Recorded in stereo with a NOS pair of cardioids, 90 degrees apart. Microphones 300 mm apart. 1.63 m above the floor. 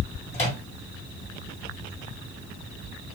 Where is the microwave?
20° left, 1.5 m.